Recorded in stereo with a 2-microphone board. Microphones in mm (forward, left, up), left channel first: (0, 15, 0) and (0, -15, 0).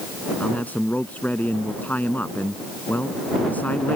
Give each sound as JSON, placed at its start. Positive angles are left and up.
{"t": 0.4, "sound": "a man speaking", "side_deg": 70}